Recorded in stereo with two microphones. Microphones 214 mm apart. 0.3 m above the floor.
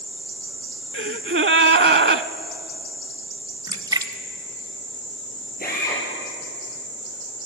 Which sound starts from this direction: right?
A gasp, at 0.9 s.